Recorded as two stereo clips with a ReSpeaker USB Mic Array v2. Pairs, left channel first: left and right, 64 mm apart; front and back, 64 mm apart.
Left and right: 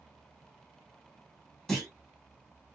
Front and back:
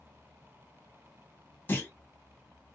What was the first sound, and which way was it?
A clunk, 15° left.